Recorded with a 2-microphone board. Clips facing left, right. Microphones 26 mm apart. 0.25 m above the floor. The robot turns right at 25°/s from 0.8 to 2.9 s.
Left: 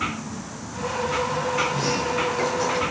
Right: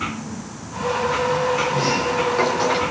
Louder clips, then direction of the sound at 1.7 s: Right 4 dB; 15° right (ahead or behind).